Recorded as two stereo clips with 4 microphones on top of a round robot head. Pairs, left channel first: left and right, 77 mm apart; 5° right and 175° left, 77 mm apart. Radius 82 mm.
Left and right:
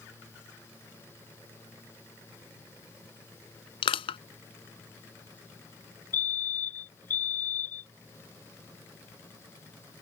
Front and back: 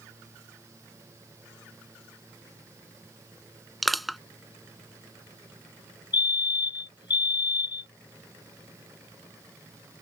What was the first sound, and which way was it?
Crushing, 85° left.